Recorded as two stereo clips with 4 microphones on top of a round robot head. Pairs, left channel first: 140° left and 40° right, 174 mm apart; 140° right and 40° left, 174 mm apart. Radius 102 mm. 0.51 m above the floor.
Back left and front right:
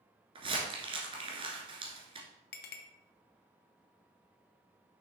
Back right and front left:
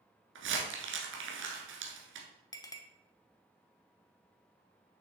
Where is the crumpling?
20° left, 1.4 m.